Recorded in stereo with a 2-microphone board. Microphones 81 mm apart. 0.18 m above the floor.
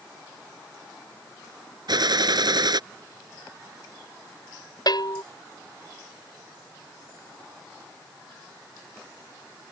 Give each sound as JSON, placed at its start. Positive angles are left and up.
{"t": 1.9, "sound": "a gunshot", "side_deg": -60}
{"t": 4.9, "sound": "a bell", "side_deg": 55}